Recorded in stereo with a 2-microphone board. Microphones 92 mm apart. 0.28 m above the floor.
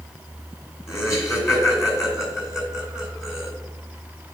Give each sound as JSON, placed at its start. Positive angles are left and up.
{"t": 0.9, "sound": "laughter", "side_deg": 35, "distance_m": 3.0}